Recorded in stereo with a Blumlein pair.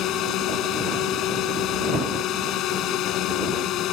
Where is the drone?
35° left.